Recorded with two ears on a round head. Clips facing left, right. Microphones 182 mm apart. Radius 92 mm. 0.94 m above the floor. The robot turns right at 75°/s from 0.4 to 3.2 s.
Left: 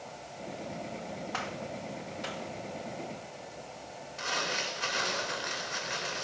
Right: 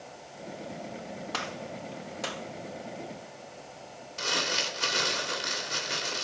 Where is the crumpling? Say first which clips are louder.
Right 3 dB; 50° right (ahead or behind), 3 m.